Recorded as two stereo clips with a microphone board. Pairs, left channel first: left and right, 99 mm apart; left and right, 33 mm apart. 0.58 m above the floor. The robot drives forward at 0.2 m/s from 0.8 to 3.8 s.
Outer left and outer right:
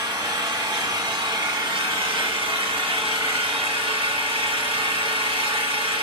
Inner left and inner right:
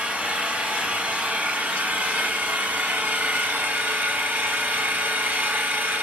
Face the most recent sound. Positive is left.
turn(degrees=-70)  # may be behind; listen again after turning